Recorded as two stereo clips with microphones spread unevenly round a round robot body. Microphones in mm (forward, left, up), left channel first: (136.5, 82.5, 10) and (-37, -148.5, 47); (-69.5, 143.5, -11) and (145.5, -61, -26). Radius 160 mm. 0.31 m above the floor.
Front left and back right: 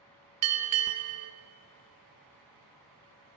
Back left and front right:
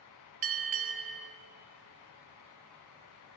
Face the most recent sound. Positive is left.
turn(degrees=-90)